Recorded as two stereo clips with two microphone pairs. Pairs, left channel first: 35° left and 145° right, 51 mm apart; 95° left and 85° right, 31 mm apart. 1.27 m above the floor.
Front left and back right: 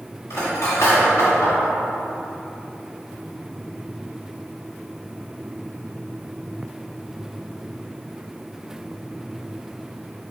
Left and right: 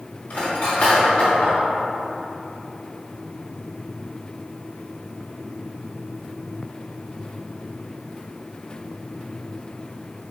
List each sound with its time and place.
0.3 s cutlery clinking: 70° left, 1.5 m